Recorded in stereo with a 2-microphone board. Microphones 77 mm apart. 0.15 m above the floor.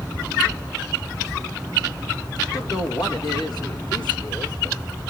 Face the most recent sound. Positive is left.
turn(degrees=55)  # may be behind; listen again after turning